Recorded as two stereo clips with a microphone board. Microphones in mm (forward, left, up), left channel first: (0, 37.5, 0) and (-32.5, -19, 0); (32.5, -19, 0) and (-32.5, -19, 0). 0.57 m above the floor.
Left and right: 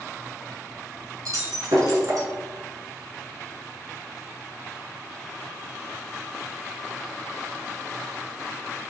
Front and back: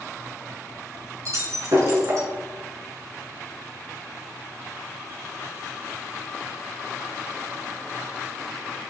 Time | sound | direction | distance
1.2 | breaking glass | 145° right | 4.5 m